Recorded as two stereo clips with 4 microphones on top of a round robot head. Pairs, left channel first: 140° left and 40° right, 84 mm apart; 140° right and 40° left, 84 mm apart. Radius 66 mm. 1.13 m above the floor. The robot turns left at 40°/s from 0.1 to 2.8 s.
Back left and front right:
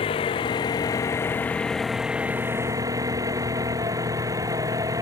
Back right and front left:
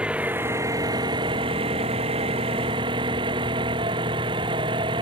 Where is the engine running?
120° left; by 5.0 s 10° left.